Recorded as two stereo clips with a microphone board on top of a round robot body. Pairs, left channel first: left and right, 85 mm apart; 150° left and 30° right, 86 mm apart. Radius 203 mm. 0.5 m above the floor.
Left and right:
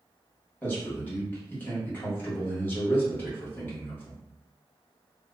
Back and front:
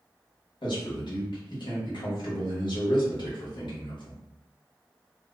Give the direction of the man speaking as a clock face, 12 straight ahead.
7 o'clock.